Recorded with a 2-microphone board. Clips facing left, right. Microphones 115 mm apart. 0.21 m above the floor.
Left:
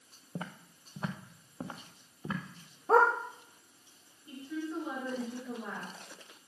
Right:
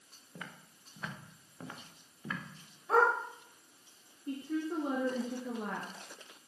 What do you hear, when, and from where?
0.3 s footsteps: 35° left (ahead or behind), 1.5 m; by 2.4 s 20° left (ahead or behind), 3.5 m
2.9 s a dog barking: 40° left (ahead or behind), 3 m
4.3 s a woman speaking: 55° right (ahead or behind), 2.5 m